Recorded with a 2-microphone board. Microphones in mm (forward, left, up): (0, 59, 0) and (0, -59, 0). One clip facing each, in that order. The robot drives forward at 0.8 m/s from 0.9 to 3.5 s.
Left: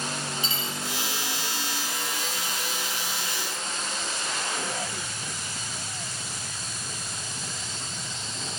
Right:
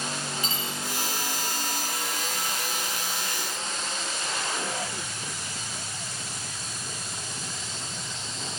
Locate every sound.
0.4 s cutlery clinking: 45° right (ahead or behind), 1.9 m